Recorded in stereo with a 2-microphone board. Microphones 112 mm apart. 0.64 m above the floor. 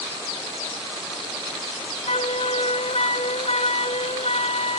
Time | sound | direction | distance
2.1 | a flute | 75° left (ahead or behind) | ?